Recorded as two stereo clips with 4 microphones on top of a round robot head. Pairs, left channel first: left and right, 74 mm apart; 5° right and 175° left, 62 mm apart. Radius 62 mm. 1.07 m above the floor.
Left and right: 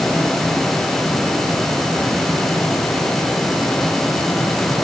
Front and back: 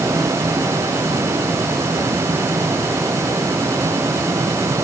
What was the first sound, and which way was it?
Only background noise.